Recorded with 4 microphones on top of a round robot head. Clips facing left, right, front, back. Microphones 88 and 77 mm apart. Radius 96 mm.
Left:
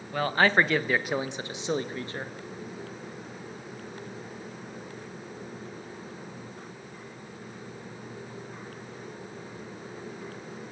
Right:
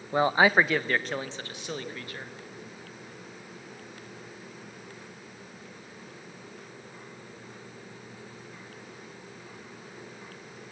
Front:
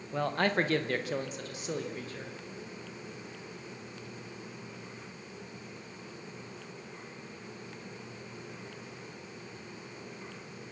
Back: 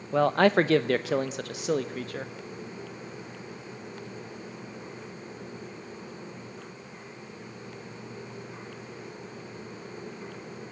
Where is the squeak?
I don't hear a squeak.